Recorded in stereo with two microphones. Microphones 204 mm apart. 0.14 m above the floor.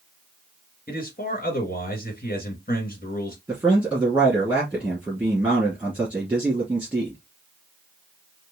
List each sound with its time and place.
0.9 s a man speaking: 45° left (ahead or behind), 2 m
3.5 s a man speaking: 10° right (ahead or behind), 2.5 m